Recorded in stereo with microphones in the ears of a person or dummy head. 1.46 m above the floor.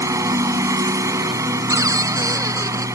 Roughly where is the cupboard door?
Centre.